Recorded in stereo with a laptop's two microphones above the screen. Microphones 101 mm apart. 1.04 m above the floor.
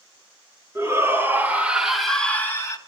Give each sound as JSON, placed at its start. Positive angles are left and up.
{"t": 0.8, "sound": "a shout", "side_deg": -30, "distance_m": 3.0}